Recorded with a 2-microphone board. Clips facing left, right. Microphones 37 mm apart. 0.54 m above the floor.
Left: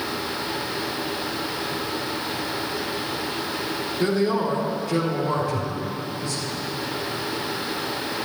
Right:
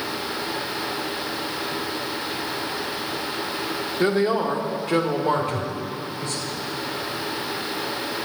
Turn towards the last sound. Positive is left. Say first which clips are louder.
# even
turn(degrees=-50)  # may be behind; listen again after turning